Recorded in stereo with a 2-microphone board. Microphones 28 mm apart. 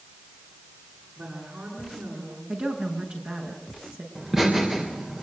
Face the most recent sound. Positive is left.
turn(degrees=-15)  # may be behind; listen again after turning